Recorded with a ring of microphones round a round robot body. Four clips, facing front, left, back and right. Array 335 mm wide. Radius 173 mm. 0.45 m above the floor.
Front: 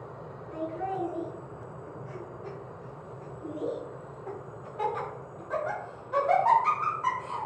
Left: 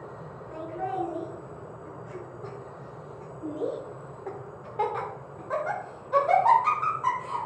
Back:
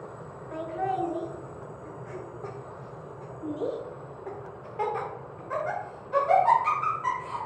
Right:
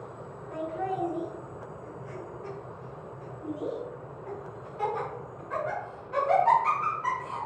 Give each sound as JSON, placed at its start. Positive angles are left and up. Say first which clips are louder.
{"t": 0.5, "sound": "laughter", "louder": "even, back 3 dB", "azimuth_deg": -175, "distance_m": 2.5}